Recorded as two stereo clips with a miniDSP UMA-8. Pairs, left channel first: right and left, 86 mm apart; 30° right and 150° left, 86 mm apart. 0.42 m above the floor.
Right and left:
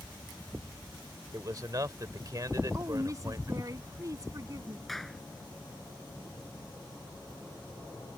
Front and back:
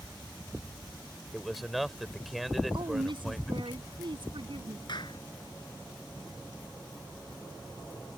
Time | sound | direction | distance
1.3 | a man speaking | 65° left | ?
2.7 | a woman speaking | 140° left | ?
4.9 | a clap | straight ahead | ?